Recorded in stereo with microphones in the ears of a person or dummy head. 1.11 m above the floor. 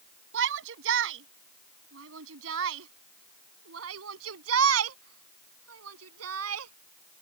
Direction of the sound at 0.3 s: 70° right (ahead or behind).